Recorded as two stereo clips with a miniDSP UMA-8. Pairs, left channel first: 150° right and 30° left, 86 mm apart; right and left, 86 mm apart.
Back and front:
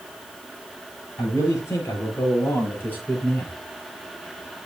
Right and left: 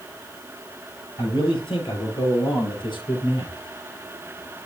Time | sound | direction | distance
1.2 | a man speaking | 100° right | 7 m